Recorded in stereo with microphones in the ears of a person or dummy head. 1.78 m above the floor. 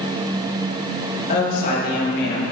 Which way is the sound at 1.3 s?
45° left (ahead or behind).